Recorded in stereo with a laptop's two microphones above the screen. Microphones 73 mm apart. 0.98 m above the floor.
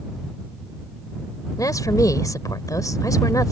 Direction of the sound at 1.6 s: 50° left (ahead or behind).